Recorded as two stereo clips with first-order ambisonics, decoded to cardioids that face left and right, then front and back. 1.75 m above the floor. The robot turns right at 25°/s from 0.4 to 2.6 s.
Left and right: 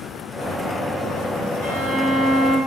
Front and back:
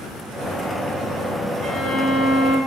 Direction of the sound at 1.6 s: 60° right.